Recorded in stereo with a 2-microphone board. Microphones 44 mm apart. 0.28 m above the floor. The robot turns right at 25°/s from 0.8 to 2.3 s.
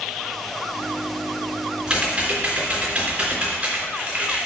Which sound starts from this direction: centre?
Typing on a keyboard, at 1.9 s.